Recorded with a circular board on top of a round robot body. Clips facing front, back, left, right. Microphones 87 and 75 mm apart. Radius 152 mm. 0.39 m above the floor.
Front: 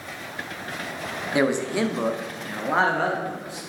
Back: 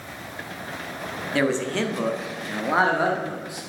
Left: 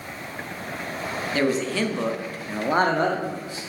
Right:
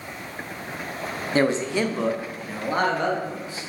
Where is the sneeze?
No sneeze in this recording.